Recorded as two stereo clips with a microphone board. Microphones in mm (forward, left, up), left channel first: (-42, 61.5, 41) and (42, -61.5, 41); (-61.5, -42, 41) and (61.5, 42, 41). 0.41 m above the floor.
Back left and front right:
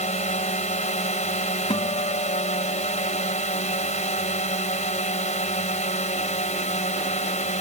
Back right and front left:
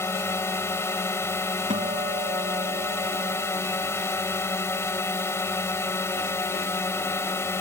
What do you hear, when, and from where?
0.0 s a drone: 145° left
1.7 s a guitar: 75° left